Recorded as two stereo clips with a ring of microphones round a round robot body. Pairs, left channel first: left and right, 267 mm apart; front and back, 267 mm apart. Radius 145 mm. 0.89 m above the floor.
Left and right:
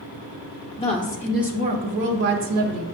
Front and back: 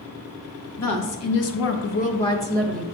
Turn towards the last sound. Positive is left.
turn(degrees=-90)